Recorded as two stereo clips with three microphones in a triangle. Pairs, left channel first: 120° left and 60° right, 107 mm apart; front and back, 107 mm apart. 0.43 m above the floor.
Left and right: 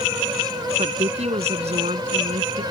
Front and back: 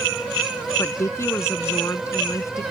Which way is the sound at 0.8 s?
65° right.